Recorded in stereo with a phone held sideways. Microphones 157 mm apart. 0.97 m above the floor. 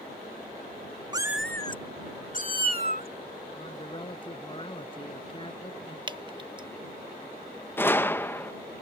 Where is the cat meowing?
25° right (ahead or behind); by 3.1 s 65° left (ahead or behind).